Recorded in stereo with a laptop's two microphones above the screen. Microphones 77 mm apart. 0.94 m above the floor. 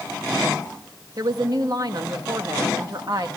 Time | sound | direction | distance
1.2 | a woman speaking | 55° right (ahead or behind) | 1.4 m